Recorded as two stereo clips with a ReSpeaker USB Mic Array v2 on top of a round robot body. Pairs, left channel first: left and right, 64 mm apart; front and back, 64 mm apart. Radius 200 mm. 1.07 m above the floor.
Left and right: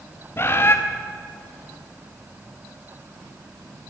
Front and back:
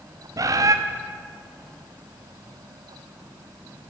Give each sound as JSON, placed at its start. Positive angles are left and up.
{"t": 0.4, "sound": "a bird", "azimuth_deg": 145, "distance_m": 1.1}